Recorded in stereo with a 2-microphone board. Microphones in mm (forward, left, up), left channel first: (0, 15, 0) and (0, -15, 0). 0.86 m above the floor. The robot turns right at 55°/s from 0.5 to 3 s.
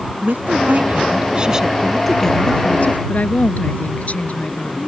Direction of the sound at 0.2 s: 80° right.